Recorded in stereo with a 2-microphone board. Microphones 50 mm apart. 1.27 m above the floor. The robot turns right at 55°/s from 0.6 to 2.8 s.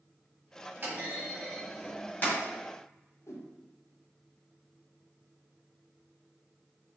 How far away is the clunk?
About 2.0 m.